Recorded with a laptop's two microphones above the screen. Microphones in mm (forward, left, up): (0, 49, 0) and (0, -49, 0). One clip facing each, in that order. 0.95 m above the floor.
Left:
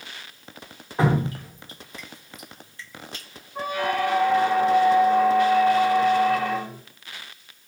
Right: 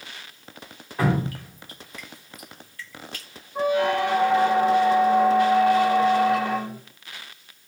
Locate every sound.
1.0 s dripping: 25° left (ahead or behind), 0.7 m
3.5 s a squeak: 20° right (ahead or behind), 1.4 m